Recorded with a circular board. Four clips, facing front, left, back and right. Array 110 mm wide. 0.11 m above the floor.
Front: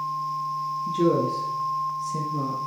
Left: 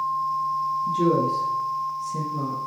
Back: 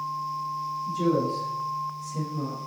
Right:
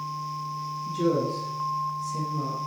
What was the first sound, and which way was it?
A woman speaking, 5° left.